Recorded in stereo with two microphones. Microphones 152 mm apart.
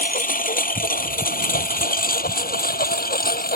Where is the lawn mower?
65° left (ahead or behind); by 3.6 s 75° left (ahead or behind).